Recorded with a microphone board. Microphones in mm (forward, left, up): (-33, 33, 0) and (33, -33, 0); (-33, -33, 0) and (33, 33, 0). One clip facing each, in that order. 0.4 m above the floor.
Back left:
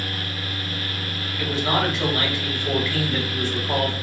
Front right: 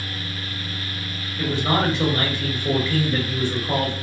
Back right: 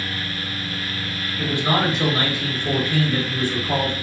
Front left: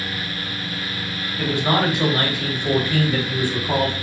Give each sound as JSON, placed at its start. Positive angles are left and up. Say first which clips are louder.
{"t": 1.4, "sound": "a man speaking", "louder": "front right 1 dB, front left 1 dB", "azimuth_deg": -10, "distance_m": 1.6}